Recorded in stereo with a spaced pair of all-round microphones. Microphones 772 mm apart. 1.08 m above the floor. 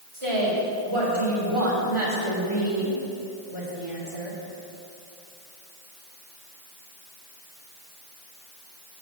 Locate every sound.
0.1 s a woman speaking: 40° right (ahead or behind), 3.5 m